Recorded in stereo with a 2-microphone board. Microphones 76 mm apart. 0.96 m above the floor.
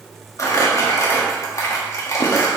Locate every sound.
0.4 s crumpling: 45° left (ahead or behind), 1.5 m